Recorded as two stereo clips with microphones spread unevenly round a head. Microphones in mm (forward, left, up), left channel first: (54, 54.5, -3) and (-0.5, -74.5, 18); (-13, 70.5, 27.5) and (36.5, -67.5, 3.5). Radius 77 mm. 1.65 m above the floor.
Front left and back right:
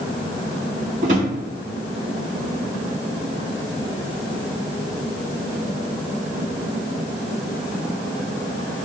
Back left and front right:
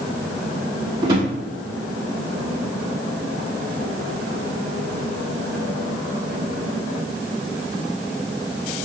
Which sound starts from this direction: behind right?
A drawer, at 1.0 s.